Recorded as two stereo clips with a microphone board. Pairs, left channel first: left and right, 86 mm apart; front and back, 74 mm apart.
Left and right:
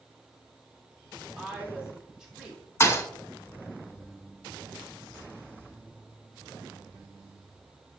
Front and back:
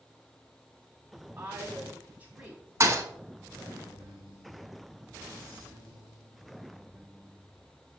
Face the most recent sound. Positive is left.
turn(degrees=140)